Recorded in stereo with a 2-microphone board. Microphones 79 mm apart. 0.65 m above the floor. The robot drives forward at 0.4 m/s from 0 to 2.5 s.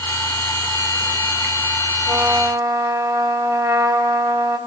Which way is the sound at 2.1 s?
50° right (ahead or behind).